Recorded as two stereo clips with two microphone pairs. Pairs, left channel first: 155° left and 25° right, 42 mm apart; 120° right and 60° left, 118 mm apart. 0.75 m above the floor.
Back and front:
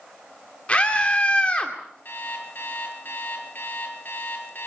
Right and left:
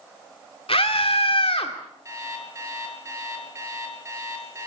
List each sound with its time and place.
0.7 s a scream: 150° right, 2 m
2.0 s an alarm clock: 125° left, 7 m